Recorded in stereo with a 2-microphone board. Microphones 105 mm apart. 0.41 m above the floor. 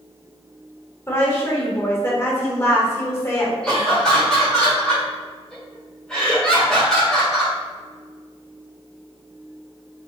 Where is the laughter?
5° left (ahead or behind), 1.5 m.